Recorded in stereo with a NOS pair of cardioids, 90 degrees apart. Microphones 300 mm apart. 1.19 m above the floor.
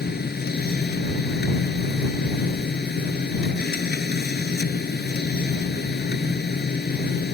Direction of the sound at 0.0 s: 35° left.